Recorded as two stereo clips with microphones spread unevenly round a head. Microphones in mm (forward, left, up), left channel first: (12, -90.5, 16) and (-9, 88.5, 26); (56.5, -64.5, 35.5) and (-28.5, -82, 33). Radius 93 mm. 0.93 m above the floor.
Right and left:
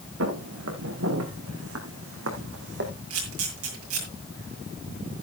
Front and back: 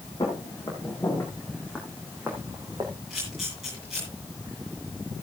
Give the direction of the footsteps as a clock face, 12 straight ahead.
9 o'clock.